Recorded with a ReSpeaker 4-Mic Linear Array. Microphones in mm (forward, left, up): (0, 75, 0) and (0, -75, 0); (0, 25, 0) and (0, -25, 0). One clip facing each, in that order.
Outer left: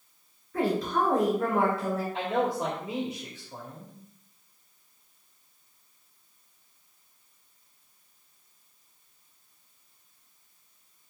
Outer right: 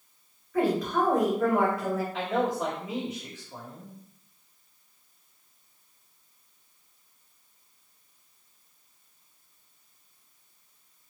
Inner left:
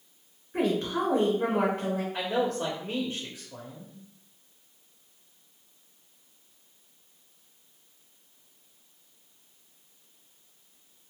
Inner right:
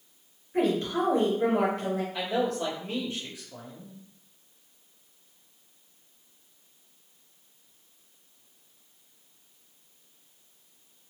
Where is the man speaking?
35° left (ahead or behind), 1.7 m.